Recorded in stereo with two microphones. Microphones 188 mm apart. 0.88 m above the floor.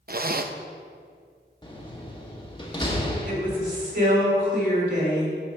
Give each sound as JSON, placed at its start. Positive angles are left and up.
{"t": 0.1, "sound": "a zipper", "side_deg": -55, "distance_m": 0.5}
{"t": 1.6, "sound": "a door slam", "side_deg": 25, "distance_m": 1.3}
{"t": 3.2, "sound": "a woman speaking", "side_deg": -70, "distance_m": 3.5}